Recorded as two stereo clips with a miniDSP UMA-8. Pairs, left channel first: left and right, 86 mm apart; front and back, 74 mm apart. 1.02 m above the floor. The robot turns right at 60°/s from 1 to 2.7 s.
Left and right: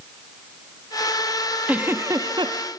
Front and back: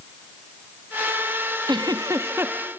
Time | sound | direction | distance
1.7 | a giggle | 165° right | 0.9 m